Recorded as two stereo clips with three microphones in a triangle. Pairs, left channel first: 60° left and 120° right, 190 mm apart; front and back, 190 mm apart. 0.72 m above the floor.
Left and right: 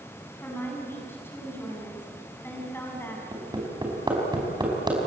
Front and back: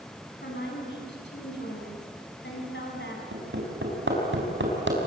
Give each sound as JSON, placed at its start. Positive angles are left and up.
{"t": 0.4, "sound": "a woman speaking", "azimuth_deg": -20, "distance_m": 7.0}
{"t": 3.3, "sound": "hammering", "azimuth_deg": 170, "distance_m": 5.0}